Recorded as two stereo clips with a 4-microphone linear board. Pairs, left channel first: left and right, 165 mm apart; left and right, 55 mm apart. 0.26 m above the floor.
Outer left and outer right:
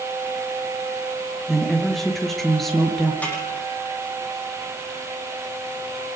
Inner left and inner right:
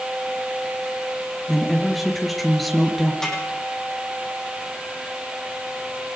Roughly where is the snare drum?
Centre.